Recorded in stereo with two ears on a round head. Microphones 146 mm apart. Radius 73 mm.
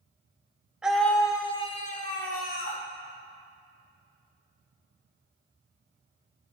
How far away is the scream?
About 0.9 m.